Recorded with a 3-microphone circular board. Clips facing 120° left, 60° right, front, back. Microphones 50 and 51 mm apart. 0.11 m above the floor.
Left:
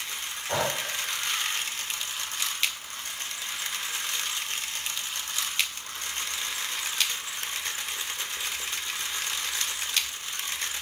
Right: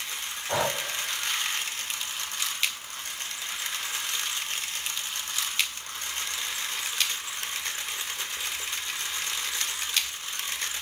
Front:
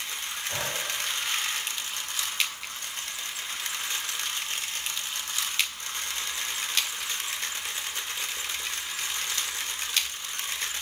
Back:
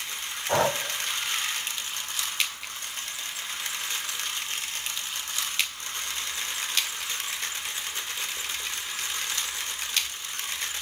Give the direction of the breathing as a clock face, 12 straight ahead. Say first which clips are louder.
Right 1 dB, back 10 dB; 5 o'clock.